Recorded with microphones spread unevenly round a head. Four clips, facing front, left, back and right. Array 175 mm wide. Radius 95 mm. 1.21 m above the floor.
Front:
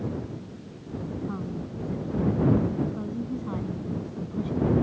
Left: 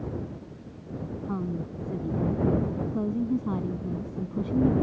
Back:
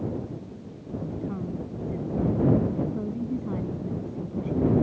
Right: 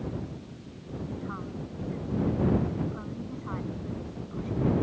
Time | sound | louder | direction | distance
1.2 | a woman speaking | left 5 dB, back 1 dB | 105° left | ?